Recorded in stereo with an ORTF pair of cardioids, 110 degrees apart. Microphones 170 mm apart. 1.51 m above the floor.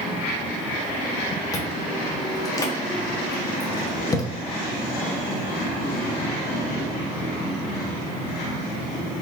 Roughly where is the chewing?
Ahead.